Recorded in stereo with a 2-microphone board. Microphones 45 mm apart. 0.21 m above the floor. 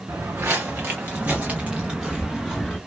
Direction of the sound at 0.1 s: 80° right.